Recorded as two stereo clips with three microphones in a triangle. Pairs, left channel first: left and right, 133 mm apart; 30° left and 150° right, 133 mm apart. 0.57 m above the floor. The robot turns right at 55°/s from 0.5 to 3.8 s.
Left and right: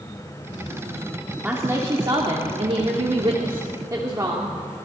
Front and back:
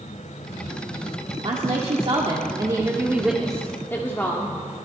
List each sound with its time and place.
1.4 s a woman speaking: 165° right, 1.2 m; by 4.6 s 40° right, 1.2 m